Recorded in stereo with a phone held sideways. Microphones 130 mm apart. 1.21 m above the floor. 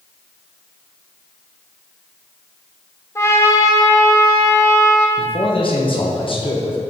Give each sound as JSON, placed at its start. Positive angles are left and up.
{"t": 3.1, "sound": "a trumpet", "side_deg": 20, "distance_m": 1.0}
{"t": 5.2, "sound": "a man speaking", "side_deg": 45, "distance_m": 1.2}